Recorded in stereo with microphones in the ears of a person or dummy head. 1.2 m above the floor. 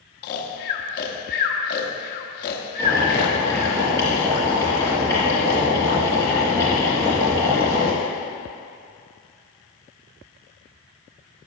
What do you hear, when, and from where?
0.2 s snoring: 55° left (ahead or behind), 1.1 m
2.8 s boiling: 15° left (ahead or behind), 3 m